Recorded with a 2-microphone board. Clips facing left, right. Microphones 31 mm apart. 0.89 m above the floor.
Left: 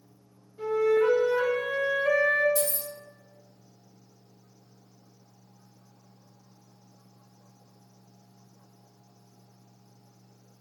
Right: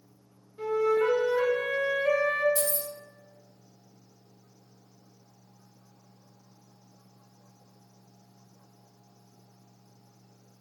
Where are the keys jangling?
35° right (ahead or behind), 2.0 m.